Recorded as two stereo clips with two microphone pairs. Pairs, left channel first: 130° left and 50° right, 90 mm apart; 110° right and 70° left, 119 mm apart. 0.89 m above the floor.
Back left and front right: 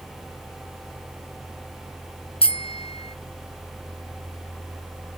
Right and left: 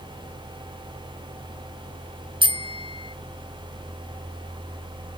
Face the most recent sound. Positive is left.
turn(degrees=120)